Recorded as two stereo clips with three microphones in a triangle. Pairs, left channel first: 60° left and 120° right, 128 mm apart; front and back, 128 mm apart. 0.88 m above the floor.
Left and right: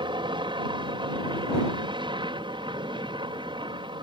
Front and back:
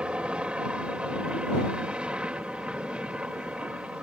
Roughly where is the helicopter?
Right.